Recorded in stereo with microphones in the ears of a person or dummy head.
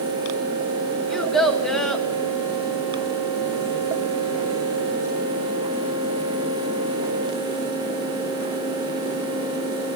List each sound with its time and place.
1.1 s a child speaking: centre (ahead or behind), 1.3 m